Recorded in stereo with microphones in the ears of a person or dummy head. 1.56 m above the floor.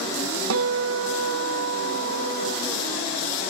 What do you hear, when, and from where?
0.5 s a guitar: 65° right (ahead or behind)